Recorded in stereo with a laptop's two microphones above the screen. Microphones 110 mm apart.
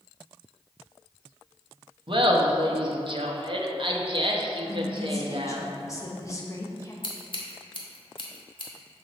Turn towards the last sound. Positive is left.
turn(degrees=50)  # may be behind; listen again after turning